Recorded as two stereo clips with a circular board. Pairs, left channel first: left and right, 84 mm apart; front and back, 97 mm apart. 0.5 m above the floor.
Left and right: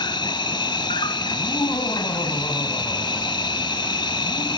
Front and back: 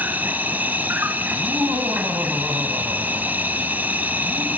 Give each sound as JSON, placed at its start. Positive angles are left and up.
{"t": 0.0, "sound": "an insect", "azimuth_deg": 110, "distance_m": 1.2}
{"t": 1.3, "sound": "laughter", "azimuth_deg": 120, "distance_m": 4.0}